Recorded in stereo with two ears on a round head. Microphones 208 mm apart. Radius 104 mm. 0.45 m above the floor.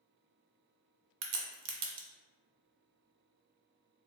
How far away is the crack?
About 0.5 m.